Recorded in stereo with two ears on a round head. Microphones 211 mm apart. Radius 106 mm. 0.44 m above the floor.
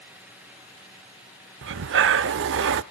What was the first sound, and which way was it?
Breathing, 55° right (ahead or behind).